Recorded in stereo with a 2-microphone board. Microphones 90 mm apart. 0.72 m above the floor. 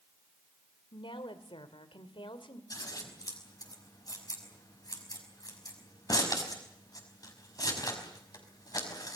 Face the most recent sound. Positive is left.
turn(degrees=45)  # may be behind; listen again after turning